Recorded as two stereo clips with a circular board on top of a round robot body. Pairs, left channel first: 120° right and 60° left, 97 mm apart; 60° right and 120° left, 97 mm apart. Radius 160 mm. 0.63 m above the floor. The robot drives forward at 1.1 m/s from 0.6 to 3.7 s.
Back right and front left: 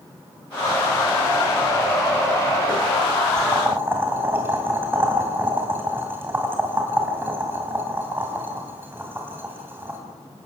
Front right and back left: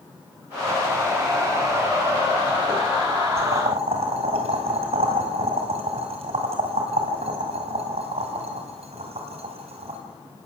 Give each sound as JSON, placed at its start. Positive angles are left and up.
{"t": 3.4, "sound": "boiling", "azimuth_deg": 120, "distance_m": 3.0}